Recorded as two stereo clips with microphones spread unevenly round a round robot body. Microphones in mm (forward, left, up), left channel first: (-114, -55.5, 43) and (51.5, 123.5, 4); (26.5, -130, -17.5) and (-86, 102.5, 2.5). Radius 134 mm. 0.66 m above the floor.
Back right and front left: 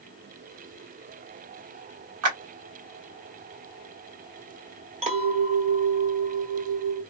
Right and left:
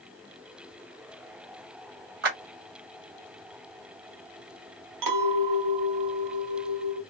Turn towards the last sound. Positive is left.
turn(degrees=105)